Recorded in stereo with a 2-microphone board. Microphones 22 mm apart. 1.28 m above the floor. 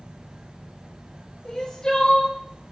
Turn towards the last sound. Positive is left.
turn(degrees=35)  # may be behind; listen again after turning